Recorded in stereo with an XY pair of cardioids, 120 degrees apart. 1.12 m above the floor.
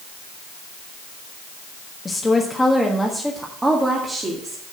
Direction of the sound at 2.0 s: 25° left.